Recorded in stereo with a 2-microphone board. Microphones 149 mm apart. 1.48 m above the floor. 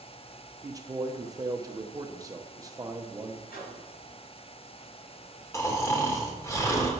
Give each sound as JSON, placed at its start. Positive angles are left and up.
{"t": 0.6, "sound": "a man speaking", "side_deg": -25, "distance_m": 1.1}
{"t": 3.5, "sound": "a microwave", "side_deg": 85, "distance_m": 6.0}
{"t": 5.5, "sound": "snoring", "side_deg": 20, "distance_m": 2.0}